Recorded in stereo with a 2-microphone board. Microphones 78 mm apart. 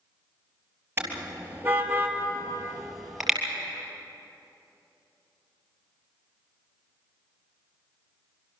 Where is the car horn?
25° right (ahead or behind), 3 m; by 3.4 s centre (ahead or behind), 3.5 m.